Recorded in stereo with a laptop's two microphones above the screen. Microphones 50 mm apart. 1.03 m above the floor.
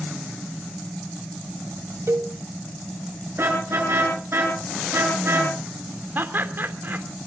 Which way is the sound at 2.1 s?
65° right (ahead or behind).